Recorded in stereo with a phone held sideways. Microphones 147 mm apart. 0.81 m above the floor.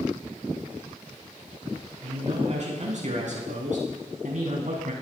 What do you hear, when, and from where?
2.0 s a man speaking: 50° right (ahead or behind), 9 m; by 4.9 s 70° right (ahead or behind), 7.5 m